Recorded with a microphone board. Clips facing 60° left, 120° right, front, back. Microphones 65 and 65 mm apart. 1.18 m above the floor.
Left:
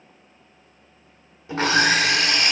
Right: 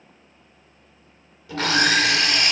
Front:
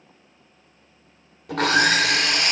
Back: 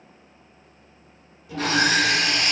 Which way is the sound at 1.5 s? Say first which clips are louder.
Left 1 dB, front 2 dB; straight ahead.